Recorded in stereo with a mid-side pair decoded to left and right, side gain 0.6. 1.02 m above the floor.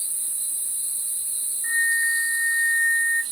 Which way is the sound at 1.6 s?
15° left.